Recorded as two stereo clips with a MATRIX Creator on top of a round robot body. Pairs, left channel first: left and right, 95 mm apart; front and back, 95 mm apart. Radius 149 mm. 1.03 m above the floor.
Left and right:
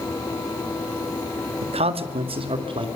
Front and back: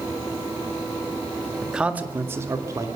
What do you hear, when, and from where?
1.6 s a man speaking: 95° right, 1.8 m; by 2.9 s 125° right, 3 m